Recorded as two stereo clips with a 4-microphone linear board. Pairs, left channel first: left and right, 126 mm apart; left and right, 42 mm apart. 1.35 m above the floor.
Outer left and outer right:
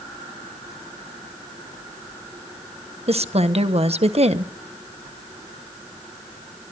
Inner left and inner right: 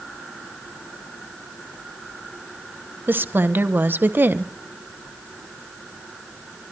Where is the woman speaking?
55° right (ahead or behind), 1.3 m.